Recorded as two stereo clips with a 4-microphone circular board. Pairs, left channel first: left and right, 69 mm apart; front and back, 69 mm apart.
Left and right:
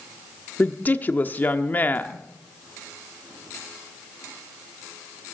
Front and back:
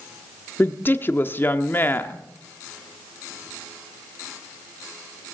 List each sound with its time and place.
0.6 s a woman speaking: 45° left, 1.0 m